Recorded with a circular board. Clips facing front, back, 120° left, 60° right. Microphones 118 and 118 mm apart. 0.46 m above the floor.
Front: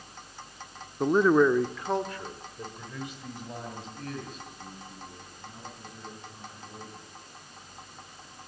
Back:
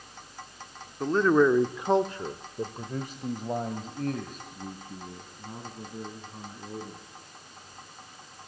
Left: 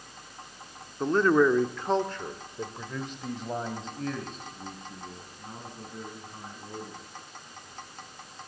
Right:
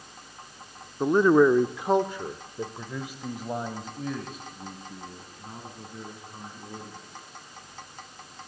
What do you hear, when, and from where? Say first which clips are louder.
1.0 s a man speaking: front 1 dB, right 3 dB; 15° right, 0.7 m; by 7.0 s 145° right, 4.5 m